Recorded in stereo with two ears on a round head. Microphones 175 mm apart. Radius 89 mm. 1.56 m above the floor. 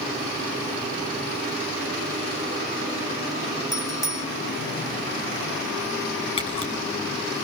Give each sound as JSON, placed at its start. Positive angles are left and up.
{"t": 3.7, "sound": "a bicycle bell", "side_deg": 0, "distance_m": 4.0}
{"t": 6.4, "sound": "a camera shutter", "side_deg": 30, "distance_m": 8.5}